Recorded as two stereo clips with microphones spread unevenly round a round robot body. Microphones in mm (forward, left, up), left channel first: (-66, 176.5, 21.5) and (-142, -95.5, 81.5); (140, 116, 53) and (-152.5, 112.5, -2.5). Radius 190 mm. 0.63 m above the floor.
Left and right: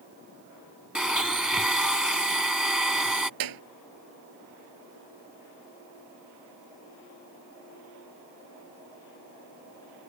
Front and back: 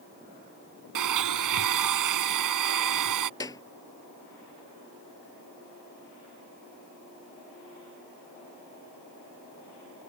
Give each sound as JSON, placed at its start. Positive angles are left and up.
{"t": 0.9, "sound": "a blender", "azimuth_deg": 165}
{"t": 3.4, "sound": "a clap", "azimuth_deg": -80}